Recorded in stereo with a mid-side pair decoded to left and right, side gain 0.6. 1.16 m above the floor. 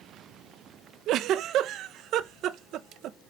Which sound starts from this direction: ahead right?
A giggle, at 1.1 s.